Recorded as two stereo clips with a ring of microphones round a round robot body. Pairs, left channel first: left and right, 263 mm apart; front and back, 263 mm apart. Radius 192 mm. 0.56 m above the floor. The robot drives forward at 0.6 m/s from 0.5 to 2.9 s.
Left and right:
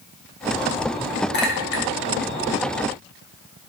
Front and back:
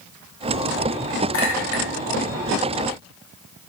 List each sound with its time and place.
1.3 s a clink: 40° left, 1.8 m; by 1.9 s 50° left, 1.6 m